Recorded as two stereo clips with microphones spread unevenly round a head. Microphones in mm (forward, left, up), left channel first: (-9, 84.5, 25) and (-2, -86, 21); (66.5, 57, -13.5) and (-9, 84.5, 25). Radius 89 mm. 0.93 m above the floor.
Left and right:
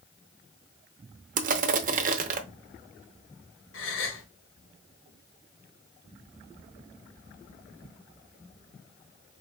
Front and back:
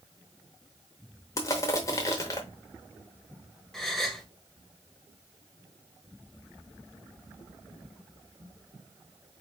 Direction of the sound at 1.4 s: 100° right.